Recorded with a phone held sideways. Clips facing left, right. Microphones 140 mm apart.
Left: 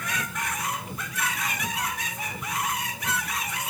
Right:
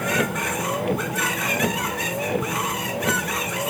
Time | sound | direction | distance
0.0 | a vehicle | 70° right (ahead or behind) | ?